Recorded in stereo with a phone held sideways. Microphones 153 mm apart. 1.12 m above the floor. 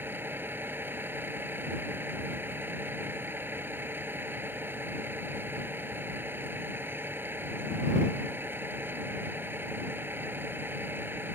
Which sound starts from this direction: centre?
A vehicle, at 0.0 s.